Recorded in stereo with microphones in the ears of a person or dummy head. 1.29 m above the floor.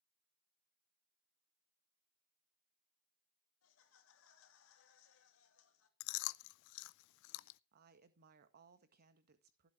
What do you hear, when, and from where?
3.6 s laughter: 75° left (ahead or behind), 3 m
6.0 s chewing: 70° left (ahead or behind), 0.5 m
7.7 s a woman speaking: 50° right (ahead or behind), 1.8 m